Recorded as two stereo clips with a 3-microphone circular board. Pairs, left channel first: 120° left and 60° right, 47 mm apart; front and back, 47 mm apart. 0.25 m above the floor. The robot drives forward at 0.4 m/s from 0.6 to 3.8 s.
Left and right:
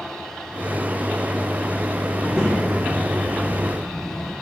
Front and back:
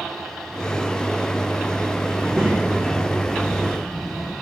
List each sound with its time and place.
2.1 s a child speaking: 100° left, 6.5 m; by 4.3 s 105° left, 6.5 m